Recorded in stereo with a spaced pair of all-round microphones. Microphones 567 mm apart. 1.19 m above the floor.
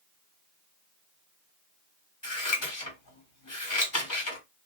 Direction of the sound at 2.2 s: 35° left (ahead or behind).